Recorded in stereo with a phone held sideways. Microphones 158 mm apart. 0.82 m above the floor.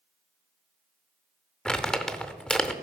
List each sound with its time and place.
1.6 s crumpling: 5° left (ahead or behind), 0.6 m